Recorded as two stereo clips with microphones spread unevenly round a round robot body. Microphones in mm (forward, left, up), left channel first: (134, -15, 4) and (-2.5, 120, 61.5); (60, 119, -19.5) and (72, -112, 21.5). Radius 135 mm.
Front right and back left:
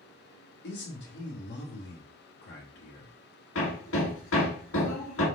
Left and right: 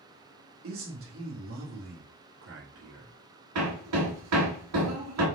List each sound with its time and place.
0.6 s a man speaking: 55° right, 2.5 m
3.5 s hammering: 85° right, 2.5 m